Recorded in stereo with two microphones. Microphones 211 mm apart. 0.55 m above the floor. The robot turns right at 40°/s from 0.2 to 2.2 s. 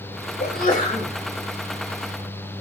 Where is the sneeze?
55° left (ahead or behind), 2.5 m; by 1.1 s 35° left (ahead or behind), 2.5 m.